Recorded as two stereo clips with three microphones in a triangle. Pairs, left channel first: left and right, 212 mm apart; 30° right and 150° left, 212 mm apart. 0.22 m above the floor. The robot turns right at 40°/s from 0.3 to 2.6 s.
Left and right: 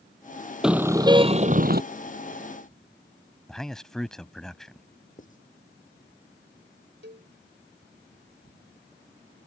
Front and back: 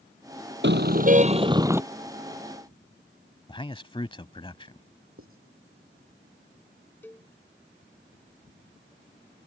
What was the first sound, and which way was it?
A car horn, 175° right.